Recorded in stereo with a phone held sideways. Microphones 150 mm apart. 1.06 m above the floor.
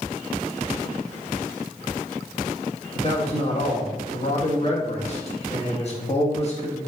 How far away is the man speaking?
About 2 m.